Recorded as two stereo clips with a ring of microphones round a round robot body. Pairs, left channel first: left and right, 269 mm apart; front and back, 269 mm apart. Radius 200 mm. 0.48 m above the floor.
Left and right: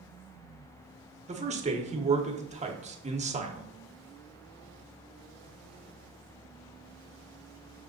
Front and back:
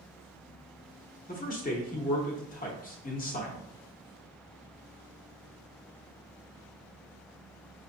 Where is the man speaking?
40° right, 0.9 m.